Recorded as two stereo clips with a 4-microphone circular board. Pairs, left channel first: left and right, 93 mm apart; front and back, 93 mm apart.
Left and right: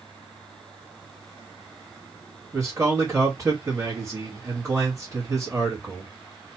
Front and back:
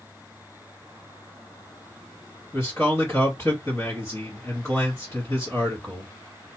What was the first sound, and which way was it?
A man speaking, 50° right.